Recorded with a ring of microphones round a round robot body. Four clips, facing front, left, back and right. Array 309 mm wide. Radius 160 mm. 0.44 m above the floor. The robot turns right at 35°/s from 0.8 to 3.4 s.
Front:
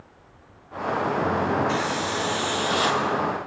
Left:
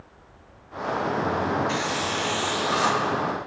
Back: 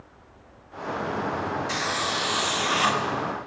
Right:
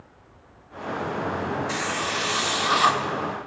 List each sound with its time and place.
1.7 s a hiss: 145° right, 0.7 m; by 3.0 s 100° right, 0.7 m